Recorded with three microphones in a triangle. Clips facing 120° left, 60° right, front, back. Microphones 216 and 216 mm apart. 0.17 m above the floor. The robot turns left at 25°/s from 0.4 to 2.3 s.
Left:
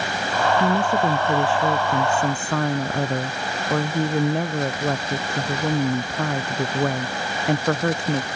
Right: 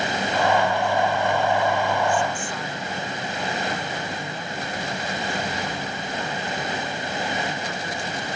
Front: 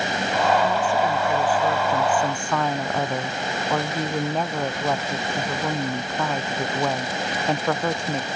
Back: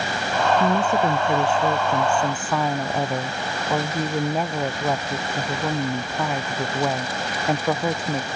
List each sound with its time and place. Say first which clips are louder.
0.6 s a woman speaking: left 2 dB, back 2 dB; 135° left; by 8.3 s 95° left